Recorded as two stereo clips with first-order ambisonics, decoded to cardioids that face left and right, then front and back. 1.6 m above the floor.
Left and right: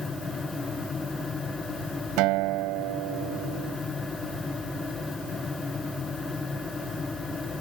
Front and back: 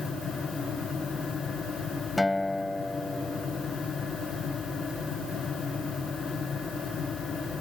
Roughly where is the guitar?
Right.